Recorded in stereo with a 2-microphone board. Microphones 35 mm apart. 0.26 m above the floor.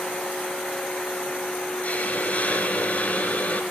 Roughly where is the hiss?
Left.